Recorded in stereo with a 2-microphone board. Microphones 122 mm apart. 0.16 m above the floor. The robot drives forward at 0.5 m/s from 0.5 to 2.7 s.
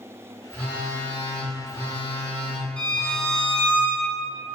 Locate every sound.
0.5 s a phone buzzing: 10° left (ahead or behind), 1.4 m; by 3.8 s 15° left (ahead or behind), 1.1 m
2.8 s a violin: 10° left (ahead or behind), 1.1 m